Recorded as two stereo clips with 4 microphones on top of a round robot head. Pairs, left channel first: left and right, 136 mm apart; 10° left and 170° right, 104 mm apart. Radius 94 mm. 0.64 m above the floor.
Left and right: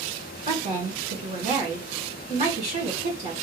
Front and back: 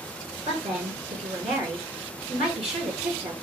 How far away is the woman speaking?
About 2 m.